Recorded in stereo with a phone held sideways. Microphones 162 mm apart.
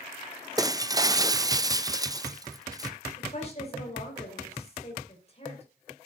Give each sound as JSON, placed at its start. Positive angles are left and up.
{"t": 0.6, "sound": "breaking glass", "side_deg": -20, "distance_m": 0.5}
{"t": 3.2, "sound": "a woman speaking", "side_deg": 40, "distance_m": 5.5}